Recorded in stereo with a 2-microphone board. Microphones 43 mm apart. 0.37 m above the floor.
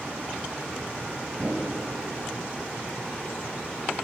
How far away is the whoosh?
About 6.5 m.